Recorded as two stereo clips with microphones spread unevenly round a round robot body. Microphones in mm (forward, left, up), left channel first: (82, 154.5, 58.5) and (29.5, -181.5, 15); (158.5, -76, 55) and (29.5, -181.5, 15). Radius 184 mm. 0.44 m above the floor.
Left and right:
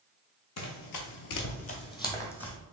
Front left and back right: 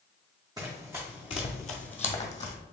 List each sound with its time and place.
0.6 s running footsteps: 120° left, 0.8 m; by 2.6 s straight ahead, 1.4 m